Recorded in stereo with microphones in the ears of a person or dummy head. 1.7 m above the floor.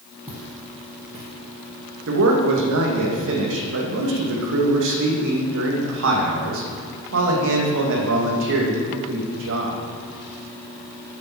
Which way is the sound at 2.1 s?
65° right (ahead or behind).